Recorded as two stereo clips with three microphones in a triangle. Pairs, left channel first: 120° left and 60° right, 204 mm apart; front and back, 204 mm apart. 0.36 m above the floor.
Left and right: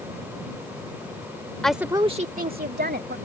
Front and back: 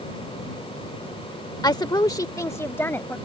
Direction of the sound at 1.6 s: 40° left.